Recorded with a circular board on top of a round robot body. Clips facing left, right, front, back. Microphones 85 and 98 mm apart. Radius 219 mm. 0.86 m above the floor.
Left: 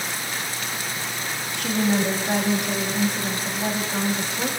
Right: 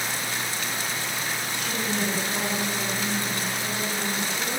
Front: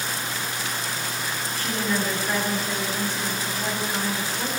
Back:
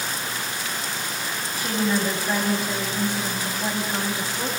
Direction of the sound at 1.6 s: 105° left.